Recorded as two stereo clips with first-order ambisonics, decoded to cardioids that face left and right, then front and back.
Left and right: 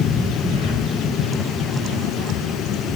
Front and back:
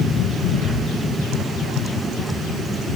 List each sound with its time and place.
0.4 s breathing: 130° left, 7 m